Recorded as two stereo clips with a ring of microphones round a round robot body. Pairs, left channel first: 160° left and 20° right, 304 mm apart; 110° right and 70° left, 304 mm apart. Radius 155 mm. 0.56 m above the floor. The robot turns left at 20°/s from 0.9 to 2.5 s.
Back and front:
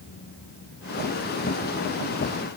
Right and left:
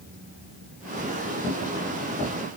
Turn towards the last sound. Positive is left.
No sound to turn to.